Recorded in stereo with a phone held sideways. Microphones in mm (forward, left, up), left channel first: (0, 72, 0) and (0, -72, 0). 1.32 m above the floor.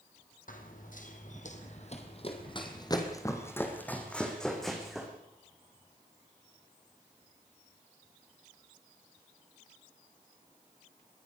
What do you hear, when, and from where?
0.5 s running footsteps: 70° left (ahead or behind), 3.5 m; by 5.1 s centre (ahead or behind), 4.5 m